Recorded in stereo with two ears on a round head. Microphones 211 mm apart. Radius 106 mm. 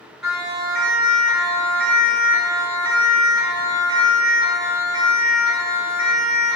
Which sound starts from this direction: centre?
A siren, at 0.2 s.